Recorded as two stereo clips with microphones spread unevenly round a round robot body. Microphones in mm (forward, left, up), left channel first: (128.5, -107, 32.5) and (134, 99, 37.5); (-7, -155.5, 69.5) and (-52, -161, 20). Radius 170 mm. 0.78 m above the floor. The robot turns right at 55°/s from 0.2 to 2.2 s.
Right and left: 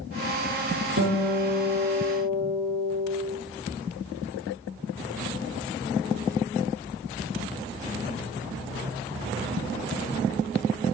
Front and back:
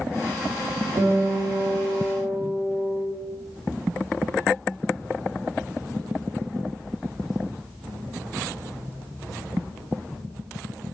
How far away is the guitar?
About 1.8 m.